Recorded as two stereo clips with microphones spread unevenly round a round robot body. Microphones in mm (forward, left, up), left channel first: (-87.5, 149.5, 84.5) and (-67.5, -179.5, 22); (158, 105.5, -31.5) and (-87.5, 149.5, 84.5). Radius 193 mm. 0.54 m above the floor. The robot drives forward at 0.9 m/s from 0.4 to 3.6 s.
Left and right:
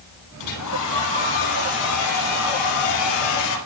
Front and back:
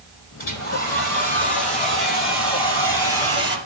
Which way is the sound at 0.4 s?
45° left.